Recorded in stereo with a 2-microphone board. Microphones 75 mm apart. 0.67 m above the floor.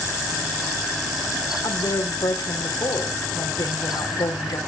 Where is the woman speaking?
60° left (ahead or behind), 2.5 m.